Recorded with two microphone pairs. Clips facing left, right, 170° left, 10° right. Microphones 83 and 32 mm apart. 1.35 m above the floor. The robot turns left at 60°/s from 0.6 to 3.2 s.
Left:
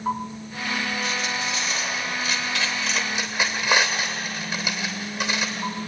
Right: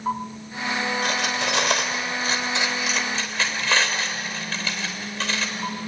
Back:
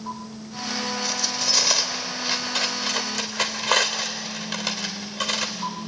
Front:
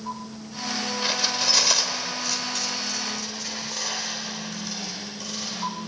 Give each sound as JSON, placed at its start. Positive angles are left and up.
{"t": 1.0, "sound": "cutlery clinking", "azimuth_deg": -65, "distance_m": 2.5}